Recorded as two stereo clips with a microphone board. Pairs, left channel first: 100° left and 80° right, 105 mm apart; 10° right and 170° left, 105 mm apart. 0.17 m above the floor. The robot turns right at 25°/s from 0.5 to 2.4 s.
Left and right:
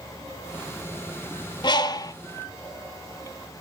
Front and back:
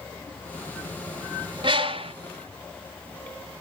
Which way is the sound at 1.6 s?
135° left.